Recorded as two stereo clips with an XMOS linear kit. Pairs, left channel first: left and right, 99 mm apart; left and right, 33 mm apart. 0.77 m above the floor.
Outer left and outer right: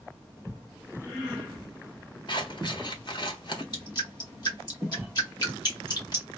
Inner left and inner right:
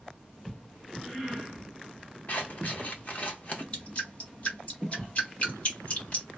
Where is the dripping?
45° left (ahead or behind), 1.7 m.